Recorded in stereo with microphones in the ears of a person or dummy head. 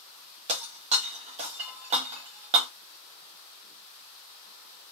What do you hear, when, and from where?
0.5 s breaking glass: 30° right (ahead or behind), 1.1 m